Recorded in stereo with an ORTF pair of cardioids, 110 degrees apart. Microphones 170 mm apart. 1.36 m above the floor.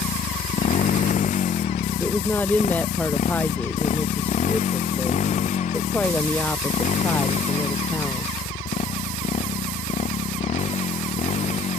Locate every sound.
0.0 s a motorcycle: 50° left; by 11.8 s 40° left
2.0 s a woman speaking: 10° left